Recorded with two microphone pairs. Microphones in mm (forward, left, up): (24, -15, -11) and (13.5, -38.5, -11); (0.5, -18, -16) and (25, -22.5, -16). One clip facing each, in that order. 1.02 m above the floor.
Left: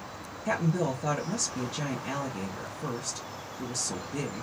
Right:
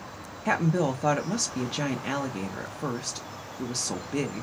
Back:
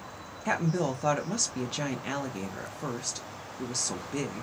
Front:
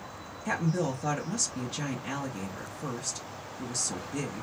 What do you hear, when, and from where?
0.5 s a woman speaking: 135° right, 0.6 m